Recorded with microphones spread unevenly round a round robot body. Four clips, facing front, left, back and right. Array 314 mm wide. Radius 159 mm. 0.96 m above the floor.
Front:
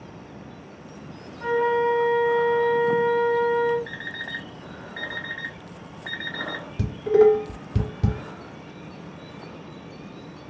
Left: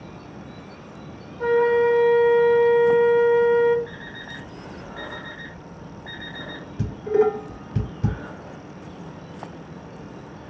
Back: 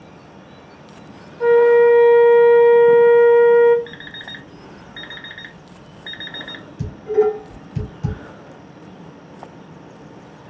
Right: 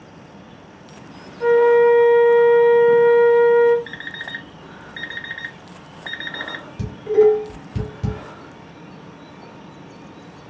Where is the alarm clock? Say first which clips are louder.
Right 4 dB, front 1 dB; 80° right, 1.9 m.